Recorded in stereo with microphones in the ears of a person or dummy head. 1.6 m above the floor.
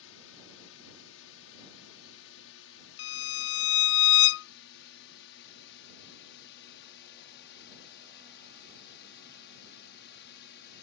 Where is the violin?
70° left (ahead or behind).